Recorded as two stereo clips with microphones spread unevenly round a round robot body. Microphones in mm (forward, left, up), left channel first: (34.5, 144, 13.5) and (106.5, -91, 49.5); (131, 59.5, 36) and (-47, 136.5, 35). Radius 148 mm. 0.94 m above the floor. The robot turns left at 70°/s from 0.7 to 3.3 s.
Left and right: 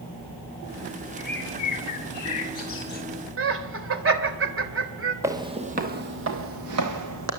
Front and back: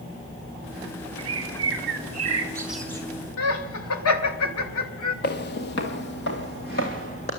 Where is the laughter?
35° right, 3 m.